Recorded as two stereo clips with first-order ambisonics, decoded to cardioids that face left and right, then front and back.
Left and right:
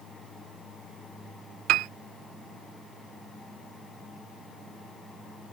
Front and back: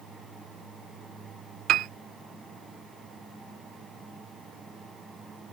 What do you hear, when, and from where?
1.7 s a piano: 130° right